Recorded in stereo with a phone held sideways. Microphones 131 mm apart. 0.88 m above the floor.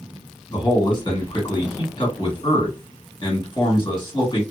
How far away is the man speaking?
About 1.7 m.